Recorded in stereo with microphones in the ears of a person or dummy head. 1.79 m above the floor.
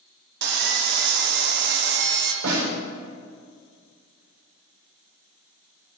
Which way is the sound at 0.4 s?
60° right (ahead or behind).